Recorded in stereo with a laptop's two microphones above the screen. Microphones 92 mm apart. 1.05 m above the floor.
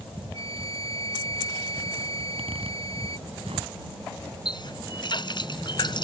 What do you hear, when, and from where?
0.3 s a flute: 80° right
2.2 s a zipper: 80° right
4.5 s a running tap: 50° left (ahead or behind)